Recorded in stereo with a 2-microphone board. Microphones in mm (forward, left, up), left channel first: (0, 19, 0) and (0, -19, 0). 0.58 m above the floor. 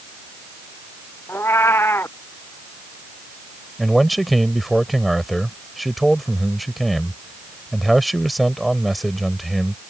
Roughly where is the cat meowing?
Left.